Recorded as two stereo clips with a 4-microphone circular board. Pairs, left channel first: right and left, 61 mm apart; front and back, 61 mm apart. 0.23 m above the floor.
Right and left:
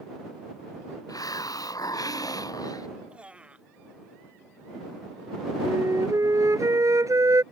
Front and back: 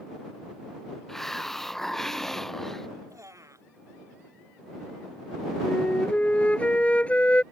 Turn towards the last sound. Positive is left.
turn(degrees=65)